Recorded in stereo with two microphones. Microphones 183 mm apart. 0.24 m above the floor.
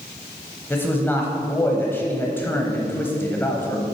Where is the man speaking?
15° left (ahead or behind), 0.9 m.